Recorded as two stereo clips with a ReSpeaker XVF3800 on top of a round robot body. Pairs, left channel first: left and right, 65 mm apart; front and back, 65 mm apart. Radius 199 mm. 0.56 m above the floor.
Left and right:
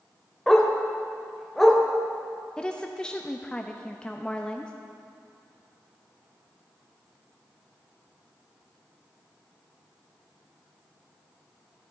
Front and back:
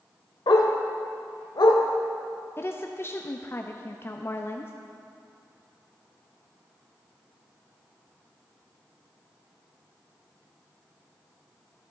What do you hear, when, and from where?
0.5 s a dog barking: straight ahead, 1.0 m
2.6 s a woman speaking: 20° left, 0.9 m